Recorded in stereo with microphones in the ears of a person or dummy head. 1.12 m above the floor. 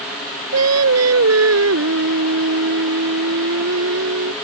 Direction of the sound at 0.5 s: 80° right.